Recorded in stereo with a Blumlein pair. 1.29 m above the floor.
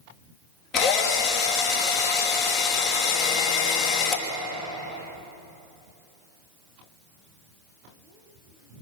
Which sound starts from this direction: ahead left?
A drill, at 0.7 s.